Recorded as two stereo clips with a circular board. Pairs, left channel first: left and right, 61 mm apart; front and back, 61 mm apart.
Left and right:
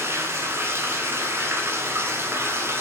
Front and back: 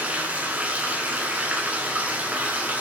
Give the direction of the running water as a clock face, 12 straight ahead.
4 o'clock.